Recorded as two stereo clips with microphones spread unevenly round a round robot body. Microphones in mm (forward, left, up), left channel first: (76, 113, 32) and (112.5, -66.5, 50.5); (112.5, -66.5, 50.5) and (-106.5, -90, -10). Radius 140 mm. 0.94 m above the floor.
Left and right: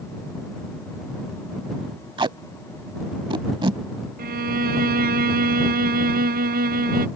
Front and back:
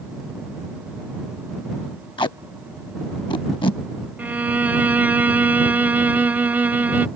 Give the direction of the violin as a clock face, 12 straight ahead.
4 o'clock.